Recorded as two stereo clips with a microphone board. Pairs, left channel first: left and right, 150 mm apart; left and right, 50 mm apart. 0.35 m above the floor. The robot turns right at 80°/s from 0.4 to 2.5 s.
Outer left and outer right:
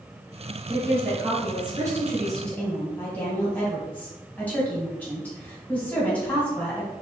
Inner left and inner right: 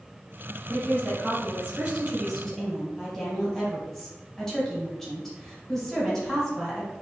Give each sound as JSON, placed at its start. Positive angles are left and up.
{"t": 0.7, "sound": "a woman speaking", "azimuth_deg": -130, "distance_m": 1.2}